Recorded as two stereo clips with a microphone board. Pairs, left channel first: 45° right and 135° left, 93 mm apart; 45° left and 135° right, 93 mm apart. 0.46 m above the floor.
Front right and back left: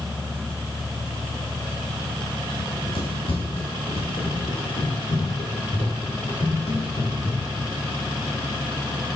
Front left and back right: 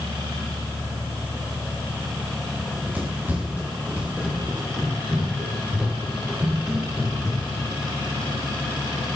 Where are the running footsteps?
65° right, 9.5 m; by 7.7 s 50° right, 10.5 m.